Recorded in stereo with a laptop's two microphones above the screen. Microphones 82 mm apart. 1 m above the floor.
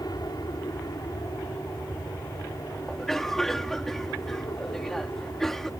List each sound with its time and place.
0.0 s an aircraft: 60° left (ahead or behind); by 5.8 s 50° left (ahead or behind)
2.9 s a cough: 5° left (ahead or behind)